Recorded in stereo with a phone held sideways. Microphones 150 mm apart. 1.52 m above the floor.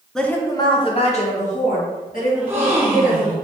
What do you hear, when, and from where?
0.1 s a woman speaking: 5° left (ahead or behind), 0.7 m; by 3.3 s 70° left (ahead or behind), 2.5 m
2.3 s a gasp: 15° right (ahead or behind), 1.3 m